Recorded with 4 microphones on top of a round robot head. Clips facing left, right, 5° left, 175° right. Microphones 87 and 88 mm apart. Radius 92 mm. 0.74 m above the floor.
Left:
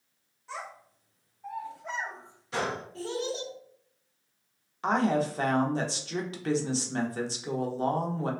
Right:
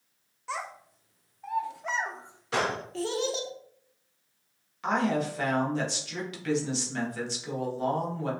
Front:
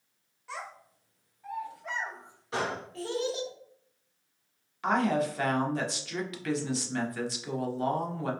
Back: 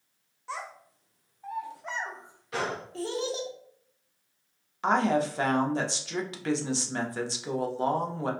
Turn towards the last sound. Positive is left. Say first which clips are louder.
# left 1 dB, back 2 dB
turn(degrees=130)